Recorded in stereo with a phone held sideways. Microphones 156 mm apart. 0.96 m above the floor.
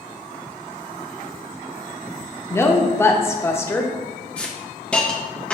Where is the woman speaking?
15° left (ahead or behind), 0.6 m.